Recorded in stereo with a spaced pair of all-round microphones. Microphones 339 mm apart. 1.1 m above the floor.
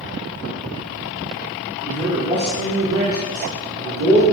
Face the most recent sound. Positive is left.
turn(degrees=-50)  # may be behind; listen again after turning